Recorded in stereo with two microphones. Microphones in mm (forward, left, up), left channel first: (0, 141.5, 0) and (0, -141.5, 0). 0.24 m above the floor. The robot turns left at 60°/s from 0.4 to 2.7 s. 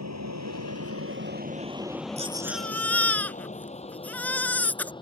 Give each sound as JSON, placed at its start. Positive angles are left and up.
{"t": 0.0, "sound": "an aircraft", "side_deg": -75}
{"t": 2.2, "sound": "a baby crying", "azimuth_deg": -155}